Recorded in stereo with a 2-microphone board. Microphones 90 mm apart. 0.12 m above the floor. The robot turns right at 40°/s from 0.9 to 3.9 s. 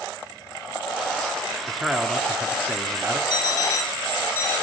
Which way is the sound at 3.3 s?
45° left (ahead or behind).